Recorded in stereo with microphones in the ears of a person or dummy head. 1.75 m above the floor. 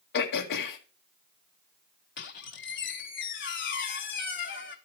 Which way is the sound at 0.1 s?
55° left (ahead or behind).